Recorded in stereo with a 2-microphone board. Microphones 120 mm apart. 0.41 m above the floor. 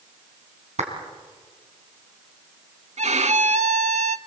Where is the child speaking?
I don't hear a child speaking.